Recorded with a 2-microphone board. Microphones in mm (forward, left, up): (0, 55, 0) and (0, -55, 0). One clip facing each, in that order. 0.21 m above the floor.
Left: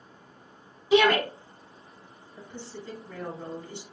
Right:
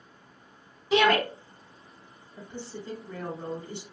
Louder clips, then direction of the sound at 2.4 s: Right 2 dB; 25° right (ahead or behind).